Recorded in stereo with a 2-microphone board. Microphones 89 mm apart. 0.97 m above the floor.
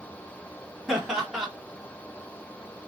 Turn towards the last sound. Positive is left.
turn(degrees=-5)  # may be behind; listen again after turning